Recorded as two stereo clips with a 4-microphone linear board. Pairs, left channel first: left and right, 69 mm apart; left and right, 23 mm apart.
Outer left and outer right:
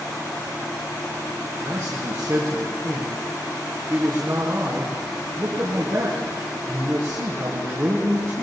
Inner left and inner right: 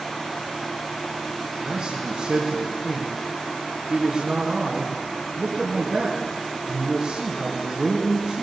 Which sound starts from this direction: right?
A man speaking, at 1.4 s.